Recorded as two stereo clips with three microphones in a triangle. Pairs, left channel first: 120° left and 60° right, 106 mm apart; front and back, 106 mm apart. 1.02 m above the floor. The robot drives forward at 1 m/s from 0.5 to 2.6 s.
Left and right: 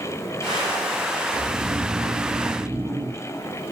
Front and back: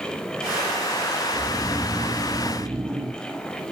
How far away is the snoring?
About 1.8 m.